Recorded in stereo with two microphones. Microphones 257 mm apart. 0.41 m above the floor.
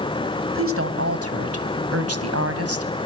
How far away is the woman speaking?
About 2.5 m.